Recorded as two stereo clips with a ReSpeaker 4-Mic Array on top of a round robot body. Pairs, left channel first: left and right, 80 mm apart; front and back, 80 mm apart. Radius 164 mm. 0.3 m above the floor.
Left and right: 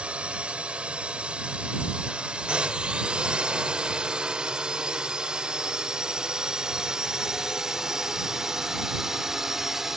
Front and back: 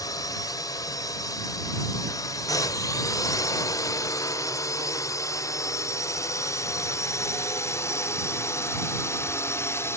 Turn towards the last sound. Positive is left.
turn(degrees=-10)